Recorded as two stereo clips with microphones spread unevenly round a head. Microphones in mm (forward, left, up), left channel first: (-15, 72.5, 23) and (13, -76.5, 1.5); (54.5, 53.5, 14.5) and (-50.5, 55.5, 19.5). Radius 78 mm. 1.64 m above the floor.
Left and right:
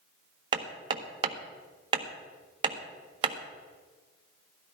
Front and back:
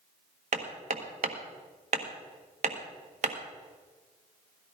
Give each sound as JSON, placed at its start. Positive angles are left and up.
{"t": 0.5, "sound": "hammering", "azimuth_deg": -145, "distance_m": 1.4}